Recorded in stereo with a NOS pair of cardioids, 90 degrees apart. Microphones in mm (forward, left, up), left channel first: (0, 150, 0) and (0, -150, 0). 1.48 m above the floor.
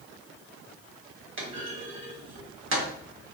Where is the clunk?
40° right, 1.1 m.